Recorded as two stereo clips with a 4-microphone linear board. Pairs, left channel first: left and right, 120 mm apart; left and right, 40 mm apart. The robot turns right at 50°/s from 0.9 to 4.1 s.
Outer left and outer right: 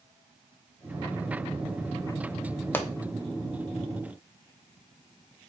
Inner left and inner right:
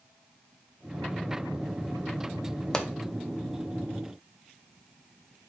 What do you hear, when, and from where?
2.7 s a pop: 15° left (ahead or behind), 0.5 m; by 2.9 s 10° left (ahead or behind), 0.5 m